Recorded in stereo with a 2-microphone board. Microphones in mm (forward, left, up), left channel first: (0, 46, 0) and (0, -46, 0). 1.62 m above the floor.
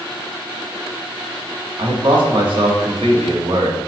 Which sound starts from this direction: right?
A man speaking, at 1.8 s.